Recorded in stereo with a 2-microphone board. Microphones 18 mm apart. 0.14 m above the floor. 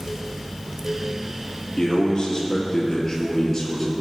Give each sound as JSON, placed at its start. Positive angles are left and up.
{"t": 1.8, "sound": "a man speaking", "side_deg": 45, "distance_m": 3.5}